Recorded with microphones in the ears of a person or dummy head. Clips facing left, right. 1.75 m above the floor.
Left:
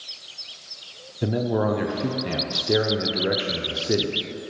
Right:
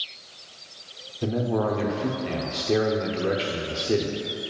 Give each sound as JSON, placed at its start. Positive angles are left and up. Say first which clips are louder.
{"t": 1.2, "sound": "a man speaking", "louder": "left 2 dB", "side_deg": 15, "distance_m": 0.6}